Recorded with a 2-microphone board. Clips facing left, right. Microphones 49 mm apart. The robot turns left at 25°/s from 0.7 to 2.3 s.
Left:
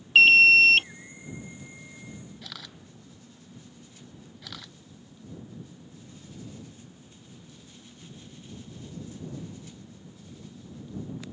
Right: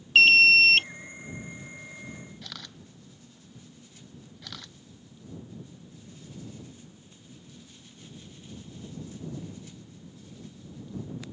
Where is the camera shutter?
5° left (ahead or behind).